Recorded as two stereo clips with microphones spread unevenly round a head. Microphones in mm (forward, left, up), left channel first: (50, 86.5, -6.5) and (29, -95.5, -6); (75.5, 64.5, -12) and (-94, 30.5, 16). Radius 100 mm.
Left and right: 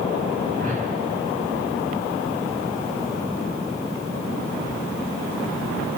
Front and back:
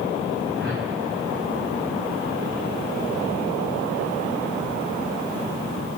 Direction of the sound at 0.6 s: 145° right.